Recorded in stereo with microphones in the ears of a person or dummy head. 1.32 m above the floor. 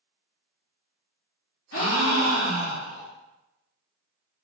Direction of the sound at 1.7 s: 85° left.